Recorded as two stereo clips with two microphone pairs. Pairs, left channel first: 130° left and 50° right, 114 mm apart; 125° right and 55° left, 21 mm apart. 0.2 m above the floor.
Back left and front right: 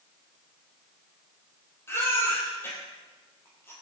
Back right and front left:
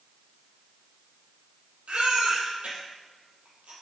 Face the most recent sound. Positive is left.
turn(degrees=60)